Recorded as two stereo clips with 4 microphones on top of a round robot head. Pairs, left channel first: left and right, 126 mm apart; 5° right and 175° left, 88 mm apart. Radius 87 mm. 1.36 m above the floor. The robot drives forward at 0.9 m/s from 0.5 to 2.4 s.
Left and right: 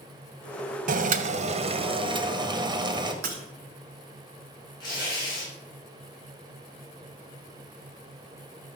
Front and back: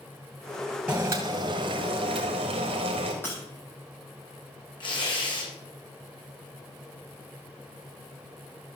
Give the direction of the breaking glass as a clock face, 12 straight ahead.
3 o'clock.